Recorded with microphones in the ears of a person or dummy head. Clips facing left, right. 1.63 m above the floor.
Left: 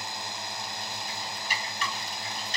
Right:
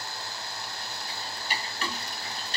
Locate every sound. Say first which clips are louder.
0.0 s a drone: left 1 dB; 20° left (ahead or behind)
1.1 s ticking: right 3 dB; 30° right (ahead or behind)